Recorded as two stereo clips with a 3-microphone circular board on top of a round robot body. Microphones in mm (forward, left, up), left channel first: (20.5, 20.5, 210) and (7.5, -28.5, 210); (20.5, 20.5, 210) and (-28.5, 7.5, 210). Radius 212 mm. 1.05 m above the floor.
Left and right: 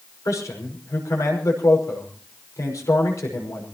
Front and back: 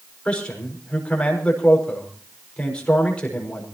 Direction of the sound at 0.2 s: 85° left.